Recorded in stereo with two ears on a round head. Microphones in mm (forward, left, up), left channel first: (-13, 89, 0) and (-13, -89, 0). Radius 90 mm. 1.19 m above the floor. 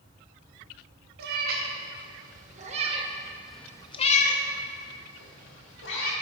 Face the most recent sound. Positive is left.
turn(degrees=65)  # may be behind; listen again after turning